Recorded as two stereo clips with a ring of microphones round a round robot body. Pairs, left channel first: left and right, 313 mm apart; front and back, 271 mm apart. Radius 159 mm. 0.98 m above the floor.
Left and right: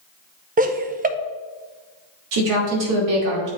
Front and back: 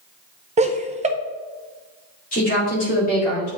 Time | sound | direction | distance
0.6 | laughter | 135° right | 0.6 m
2.3 | a woman speaking | 65° right | 2.5 m